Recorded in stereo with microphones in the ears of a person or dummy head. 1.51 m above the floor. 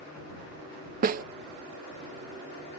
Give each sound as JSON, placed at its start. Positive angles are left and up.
{"t": 1.0, "sound": "a snare drum", "side_deg": -45}